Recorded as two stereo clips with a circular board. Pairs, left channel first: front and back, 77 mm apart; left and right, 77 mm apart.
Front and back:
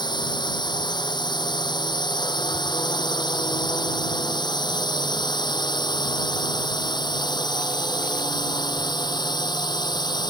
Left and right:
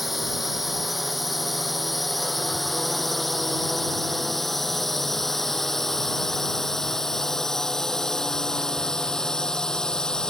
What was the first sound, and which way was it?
A drone, straight ahead.